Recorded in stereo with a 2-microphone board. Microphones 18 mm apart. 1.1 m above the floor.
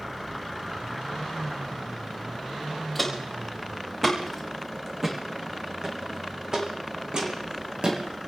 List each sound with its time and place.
3.0 s footsteps: 10° left (ahead or behind), 4 m; by 8.3 s 55° right (ahead or behind), 3 m